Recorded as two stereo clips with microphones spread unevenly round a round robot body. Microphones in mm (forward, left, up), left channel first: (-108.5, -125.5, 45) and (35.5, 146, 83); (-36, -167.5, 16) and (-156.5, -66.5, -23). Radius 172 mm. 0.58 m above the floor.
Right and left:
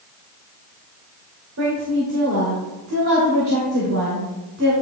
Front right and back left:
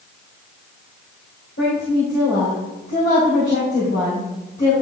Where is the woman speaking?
15° left, 2.5 m.